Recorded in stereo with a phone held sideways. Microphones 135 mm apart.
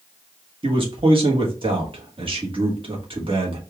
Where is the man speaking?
40° right (ahead or behind), 1.3 m.